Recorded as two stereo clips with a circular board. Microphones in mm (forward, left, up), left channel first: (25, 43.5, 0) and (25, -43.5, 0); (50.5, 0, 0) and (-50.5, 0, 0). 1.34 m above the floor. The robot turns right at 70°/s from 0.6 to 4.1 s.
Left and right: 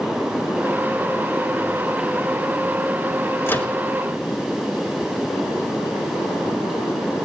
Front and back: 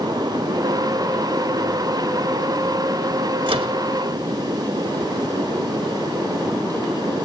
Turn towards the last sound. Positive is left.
turn(degrees=-165)